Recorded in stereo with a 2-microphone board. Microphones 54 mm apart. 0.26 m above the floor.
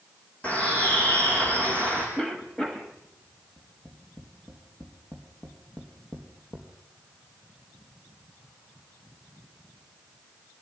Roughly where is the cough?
Centre.